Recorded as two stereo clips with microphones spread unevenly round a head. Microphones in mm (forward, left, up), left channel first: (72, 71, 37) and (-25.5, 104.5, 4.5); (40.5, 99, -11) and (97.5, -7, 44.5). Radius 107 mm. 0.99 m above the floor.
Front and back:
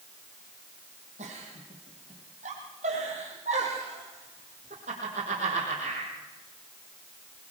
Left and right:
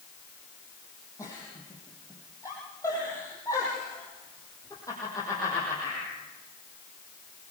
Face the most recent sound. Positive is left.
turn(degrees=-160)